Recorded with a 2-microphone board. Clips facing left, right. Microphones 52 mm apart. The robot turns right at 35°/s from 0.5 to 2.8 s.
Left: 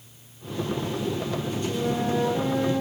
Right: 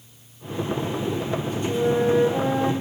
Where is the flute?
125° right, 5 m; by 2.7 s 90° right, 5 m.